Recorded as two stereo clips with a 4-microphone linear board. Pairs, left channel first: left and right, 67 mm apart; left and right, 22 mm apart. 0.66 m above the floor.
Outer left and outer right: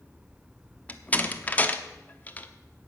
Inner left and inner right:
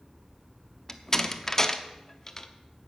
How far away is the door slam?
About 0.8 m.